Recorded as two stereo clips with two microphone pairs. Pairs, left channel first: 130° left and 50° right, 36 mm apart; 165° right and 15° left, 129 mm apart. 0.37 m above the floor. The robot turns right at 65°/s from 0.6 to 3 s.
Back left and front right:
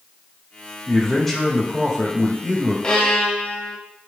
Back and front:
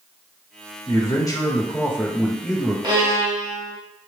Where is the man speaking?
Straight behind, 1.1 m; by 2.7 s 55° right, 1.1 m.